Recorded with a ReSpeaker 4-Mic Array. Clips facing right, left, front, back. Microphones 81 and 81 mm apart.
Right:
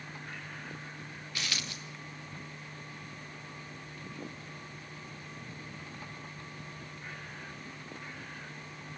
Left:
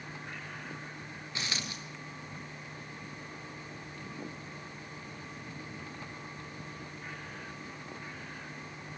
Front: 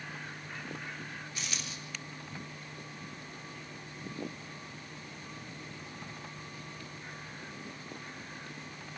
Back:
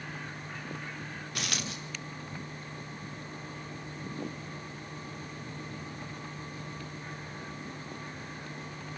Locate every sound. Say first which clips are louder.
1.4 s a dropped coin: left 1 dB, back 8 dB; 155° left, 3 m